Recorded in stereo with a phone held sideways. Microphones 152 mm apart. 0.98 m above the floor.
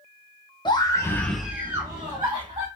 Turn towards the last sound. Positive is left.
turn(degrees=-35)  # may be behind; listen again after turning